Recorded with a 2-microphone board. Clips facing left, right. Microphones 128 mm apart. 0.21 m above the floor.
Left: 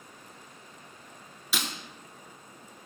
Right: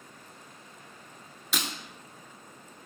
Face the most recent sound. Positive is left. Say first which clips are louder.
# even
turn(degrees=5)  # may be behind; listen again after turning